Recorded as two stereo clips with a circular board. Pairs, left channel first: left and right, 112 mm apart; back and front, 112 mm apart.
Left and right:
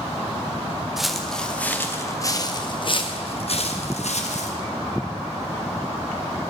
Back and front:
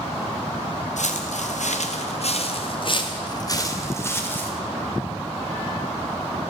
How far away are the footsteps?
About 1.9 m.